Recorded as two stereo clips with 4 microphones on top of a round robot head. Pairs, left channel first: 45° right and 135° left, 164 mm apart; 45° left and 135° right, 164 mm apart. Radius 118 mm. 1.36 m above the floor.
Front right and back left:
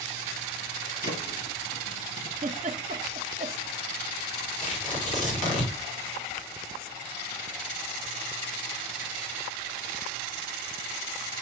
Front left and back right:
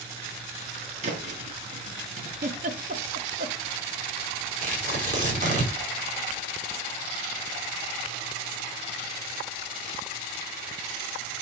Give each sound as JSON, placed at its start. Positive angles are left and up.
{"t": 1.0, "sound": "a thud", "azimuth_deg": -85, "distance_m": 3.0}
{"t": 2.4, "sound": "a giggle", "azimuth_deg": -170, "distance_m": 1.2}
{"t": 4.6, "sound": "tearing paper", "azimuth_deg": -90, "distance_m": 4.5}